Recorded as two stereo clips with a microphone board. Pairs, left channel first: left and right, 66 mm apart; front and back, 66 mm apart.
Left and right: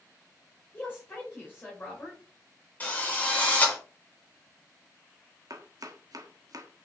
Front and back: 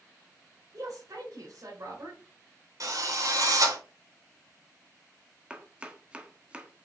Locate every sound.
0.7 s a woman speaking: 150° left, 4.5 m
2.8 s a drill: 155° left, 4 m
5.5 s chopping: 105° right, 1.4 m